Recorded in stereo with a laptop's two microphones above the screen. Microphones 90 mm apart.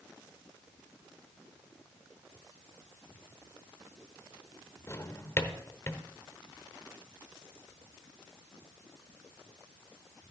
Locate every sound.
4.9 s a drawer: 30° left (ahead or behind), 0.9 m